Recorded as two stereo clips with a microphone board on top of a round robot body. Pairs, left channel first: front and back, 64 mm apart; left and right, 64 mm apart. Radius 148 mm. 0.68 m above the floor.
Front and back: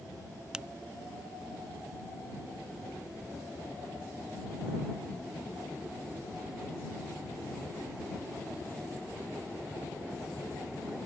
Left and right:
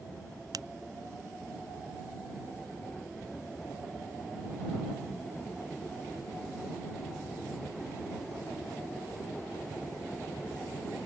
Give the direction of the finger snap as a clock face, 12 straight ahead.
3 o'clock.